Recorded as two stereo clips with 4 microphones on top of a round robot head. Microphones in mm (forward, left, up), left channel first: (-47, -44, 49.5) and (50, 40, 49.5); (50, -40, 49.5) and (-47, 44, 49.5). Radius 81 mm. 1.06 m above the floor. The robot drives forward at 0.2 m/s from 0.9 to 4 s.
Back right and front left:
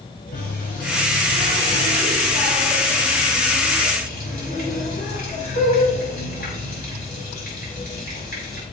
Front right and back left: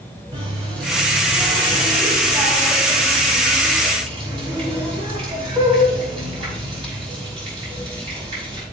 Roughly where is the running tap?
Behind.